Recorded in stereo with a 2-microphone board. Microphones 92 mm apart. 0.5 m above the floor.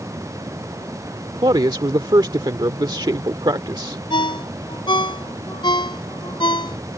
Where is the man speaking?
50° right (ahead or behind).